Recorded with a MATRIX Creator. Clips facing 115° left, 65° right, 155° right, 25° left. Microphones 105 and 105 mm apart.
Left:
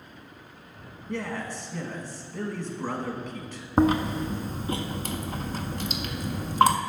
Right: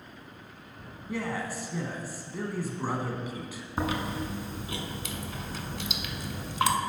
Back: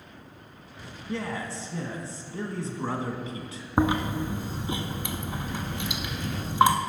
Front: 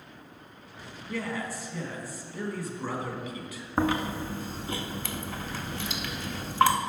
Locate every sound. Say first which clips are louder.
1.1 s a man speaking: even, back 1 dB; 140° right, 1.1 m
3.8 s chewing: left 9 dB, back 2 dB; 135° left, 0.6 m